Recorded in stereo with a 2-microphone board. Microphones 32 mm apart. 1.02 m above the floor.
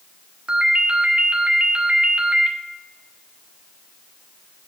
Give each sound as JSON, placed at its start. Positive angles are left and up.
{"t": 0.5, "sound": "a ringtone", "side_deg": -35, "distance_m": 1.2}